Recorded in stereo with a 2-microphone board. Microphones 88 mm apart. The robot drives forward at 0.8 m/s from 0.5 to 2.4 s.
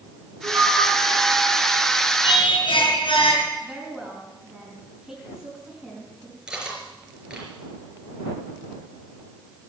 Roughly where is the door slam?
No door slam in this recording.